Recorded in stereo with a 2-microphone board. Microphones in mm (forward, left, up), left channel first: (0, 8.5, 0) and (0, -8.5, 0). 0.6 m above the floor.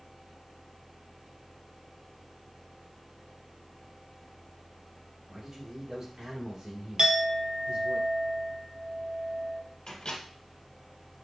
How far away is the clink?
About 0.8 m.